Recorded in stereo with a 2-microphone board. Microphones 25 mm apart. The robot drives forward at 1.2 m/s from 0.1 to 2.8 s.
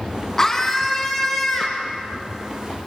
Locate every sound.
0.4 s a scream: 20° left (ahead or behind), 2.5 m; by 1.9 s 10° left (ahead or behind), 4 m